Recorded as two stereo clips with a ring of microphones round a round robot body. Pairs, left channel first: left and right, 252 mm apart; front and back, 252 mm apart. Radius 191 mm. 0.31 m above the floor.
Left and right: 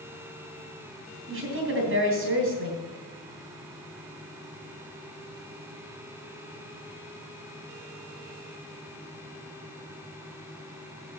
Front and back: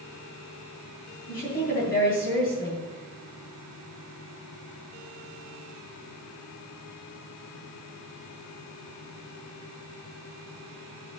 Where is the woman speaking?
60° right, 3 m.